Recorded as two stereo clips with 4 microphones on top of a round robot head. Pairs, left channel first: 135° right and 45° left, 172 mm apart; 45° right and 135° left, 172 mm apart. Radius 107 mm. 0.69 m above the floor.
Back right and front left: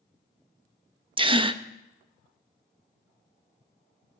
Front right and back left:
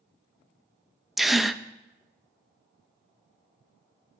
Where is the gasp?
50° left, 0.6 m.